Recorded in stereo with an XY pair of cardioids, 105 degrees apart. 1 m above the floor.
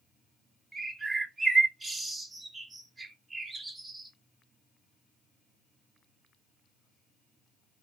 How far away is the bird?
About 0.8 m.